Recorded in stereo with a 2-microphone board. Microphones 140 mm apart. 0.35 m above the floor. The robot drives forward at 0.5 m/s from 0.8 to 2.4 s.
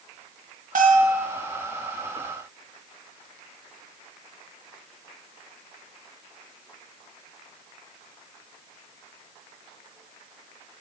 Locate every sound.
0.8 s a bell: 70° right (ahead or behind), 1.3 m; by 1.3 s 65° right (ahead or behind), 1.4 m